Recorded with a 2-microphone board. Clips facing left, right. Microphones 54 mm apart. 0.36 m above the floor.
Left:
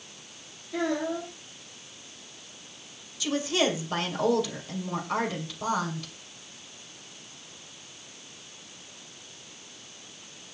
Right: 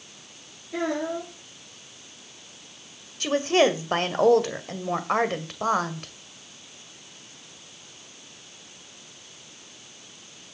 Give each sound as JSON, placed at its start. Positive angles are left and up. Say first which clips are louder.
{"t": 0.7, "sound": "a child speaking", "louder": "right 1 dB", "side_deg": -30, "distance_m": 8.0}
{"t": 3.2, "sound": "a woman speaking", "louder": "right 6 dB", "side_deg": -45, "distance_m": 2.0}